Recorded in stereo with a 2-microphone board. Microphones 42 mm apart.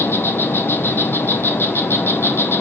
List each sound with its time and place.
0.0 s an insect: 80° left, 0.8 m